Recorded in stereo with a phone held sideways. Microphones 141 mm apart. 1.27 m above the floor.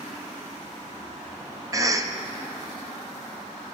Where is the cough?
25° right (ahead or behind), 0.5 m.